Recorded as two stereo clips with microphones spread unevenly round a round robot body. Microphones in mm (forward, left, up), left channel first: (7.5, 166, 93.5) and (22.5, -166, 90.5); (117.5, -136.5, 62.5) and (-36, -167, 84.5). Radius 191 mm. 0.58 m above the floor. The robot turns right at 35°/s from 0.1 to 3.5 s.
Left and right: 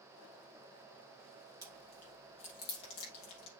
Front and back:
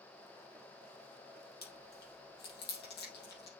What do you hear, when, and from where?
1.6 s chewing: 5° right, 4 m; by 3.5 s 60° left, 4 m